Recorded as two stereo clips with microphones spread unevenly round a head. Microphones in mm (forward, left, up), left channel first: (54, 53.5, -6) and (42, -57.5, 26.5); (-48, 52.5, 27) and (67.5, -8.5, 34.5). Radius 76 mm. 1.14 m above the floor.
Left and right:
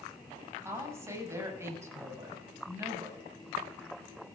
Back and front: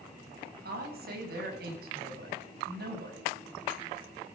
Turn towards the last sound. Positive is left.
turn(degrees=-30)